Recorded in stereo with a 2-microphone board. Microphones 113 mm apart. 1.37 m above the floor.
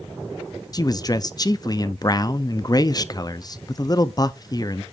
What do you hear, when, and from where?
0.7 s a man speaking: 35° left (ahead or behind), 0.5 m